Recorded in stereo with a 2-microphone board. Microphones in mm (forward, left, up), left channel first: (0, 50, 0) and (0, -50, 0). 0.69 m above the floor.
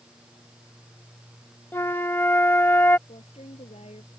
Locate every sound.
1.7 s a flute: 20° left (ahead or behind)
3.1 s a woman speaking: 80° left